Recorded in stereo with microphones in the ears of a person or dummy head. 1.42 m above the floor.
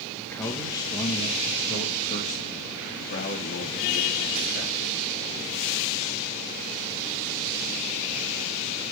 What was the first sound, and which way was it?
A man speaking, 5° left (ahead or behind).